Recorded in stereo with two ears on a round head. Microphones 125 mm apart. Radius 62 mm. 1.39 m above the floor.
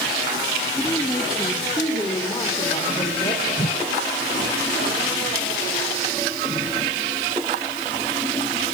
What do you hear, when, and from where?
0.8 s a woman speaking: 10° left (ahead or behind), 2.5 m; by 4.6 s 30° left (ahead or behind), 6 m
3.6 s a whoosh: 40° left (ahead or behind), 1.2 m